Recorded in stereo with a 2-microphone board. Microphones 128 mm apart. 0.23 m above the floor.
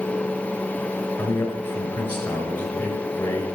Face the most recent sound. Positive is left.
turn(degrees=15)  # may be behind; listen again after turning